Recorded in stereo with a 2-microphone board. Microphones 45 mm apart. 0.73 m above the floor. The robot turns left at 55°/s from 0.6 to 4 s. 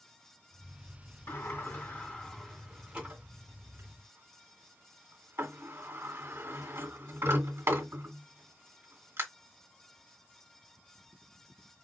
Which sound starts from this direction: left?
A sliding door, at 1.3 s.